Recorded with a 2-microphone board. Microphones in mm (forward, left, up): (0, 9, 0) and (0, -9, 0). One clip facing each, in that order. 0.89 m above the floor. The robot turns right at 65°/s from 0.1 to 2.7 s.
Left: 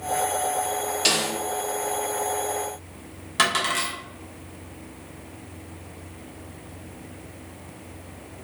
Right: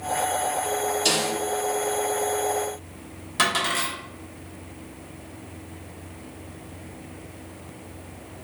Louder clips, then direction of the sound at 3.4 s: Left 1 dB; 15° left (ahead or behind).